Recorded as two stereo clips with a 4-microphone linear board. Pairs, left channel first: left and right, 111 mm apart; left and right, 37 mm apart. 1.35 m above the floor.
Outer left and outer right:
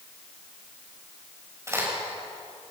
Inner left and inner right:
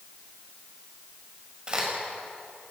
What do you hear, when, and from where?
1.7 s a crack: 25° right (ahead or behind), 7.5 m